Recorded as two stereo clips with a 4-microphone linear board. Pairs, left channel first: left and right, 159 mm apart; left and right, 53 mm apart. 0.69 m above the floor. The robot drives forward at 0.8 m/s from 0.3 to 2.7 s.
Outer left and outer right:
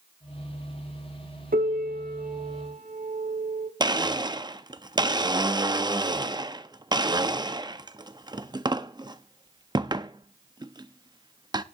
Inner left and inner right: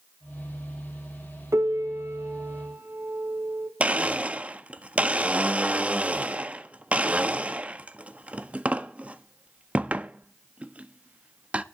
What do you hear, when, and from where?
1.5 s a piano: 60° right (ahead or behind), 1.5 m; by 3.7 s 45° right (ahead or behind), 1.8 m
3.8 s a blender: 25° right (ahead or behind), 0.6 m